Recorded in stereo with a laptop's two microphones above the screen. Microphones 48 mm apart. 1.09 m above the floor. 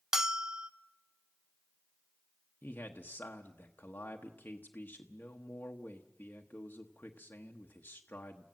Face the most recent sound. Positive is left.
turn(degrees=35)  # may be behind; listen again after turning